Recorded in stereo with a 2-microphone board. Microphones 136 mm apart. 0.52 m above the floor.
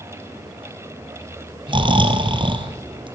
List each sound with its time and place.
1.7 s snoring: 40° right (ahead or behind), 2.5 m